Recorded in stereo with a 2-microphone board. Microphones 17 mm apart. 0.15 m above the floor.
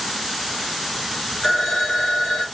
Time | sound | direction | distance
1.4 | a phone ringing | 30° left (ahead or behind) | 1.6 m